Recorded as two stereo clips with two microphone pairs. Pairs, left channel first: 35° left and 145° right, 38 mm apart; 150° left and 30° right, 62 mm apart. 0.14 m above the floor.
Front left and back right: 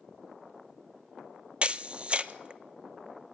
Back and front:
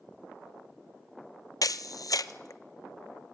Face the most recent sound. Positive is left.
turn(degrees=155)